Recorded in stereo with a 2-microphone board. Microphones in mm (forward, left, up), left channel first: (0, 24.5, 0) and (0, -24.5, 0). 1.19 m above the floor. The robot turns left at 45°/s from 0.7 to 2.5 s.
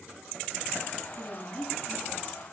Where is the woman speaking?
65° left, 7.5 m; by 2.4 s 10° left, 7.5 m.